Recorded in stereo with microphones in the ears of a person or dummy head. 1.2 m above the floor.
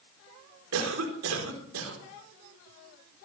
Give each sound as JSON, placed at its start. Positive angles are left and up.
{"t": 0.7, "sound": "a cough", "side_deg": -85, "distance_m": 4.0}